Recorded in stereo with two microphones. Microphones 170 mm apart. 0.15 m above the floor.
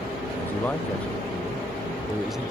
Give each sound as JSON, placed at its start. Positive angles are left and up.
{"t": 0.4, "sound": "a man speaking", "side_deg": 15}